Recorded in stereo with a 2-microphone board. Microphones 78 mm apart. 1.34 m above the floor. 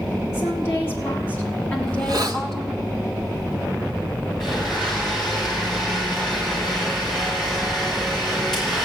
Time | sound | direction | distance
0.3 | a woman speaking | 30° left (ahead or behind) | 4.5 m
1.9 | a hiss | 50° right (ahead or behind) | 1.3 m
4.4 | a blender | 5° left (ahead or behind) | 8 m